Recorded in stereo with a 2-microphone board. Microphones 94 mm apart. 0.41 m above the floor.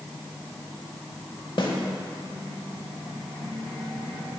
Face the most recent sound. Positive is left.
turn(degrees=55)  # may be behind; listen again after turning